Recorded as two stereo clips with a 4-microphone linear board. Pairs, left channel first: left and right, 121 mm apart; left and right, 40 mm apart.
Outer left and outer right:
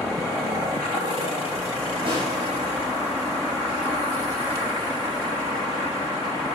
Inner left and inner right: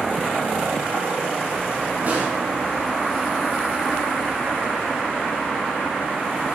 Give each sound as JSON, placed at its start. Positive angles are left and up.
{"t": 2.0, "sound": "a snare drum", "side_deg": -45, "distance_m": 5.0}